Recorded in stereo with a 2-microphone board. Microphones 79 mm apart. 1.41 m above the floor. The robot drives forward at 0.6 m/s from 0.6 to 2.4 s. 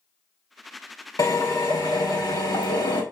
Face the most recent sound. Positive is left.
turn(degrees=65)  # may be behind; listen again after turning